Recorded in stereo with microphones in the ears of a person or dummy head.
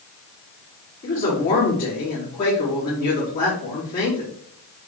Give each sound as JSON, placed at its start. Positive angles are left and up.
{"t": 1.0, "sound": "a man speaking", "side_deg": 45, "distance_m": 3.5}